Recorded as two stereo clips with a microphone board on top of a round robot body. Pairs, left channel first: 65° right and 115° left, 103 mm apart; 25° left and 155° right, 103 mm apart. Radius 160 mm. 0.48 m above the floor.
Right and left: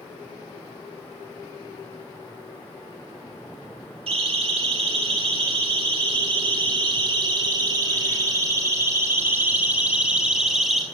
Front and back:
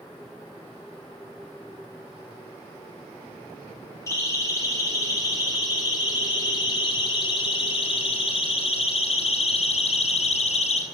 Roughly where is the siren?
Left.